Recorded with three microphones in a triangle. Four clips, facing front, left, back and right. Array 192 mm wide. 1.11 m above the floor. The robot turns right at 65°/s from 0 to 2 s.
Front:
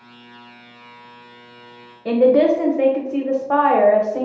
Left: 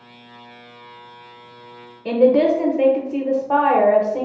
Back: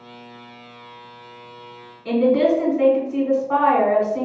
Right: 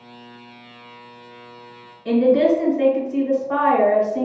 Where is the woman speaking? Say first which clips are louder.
Left 1 dB, front 3 dB; 40° left, 0.7 m.